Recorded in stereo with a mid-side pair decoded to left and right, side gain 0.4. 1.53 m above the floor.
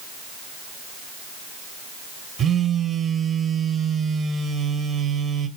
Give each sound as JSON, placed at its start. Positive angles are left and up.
{"t": 2.4, "sound": "a phone buzzing", "azimuth_deg": -65, "distance_m": 1.5}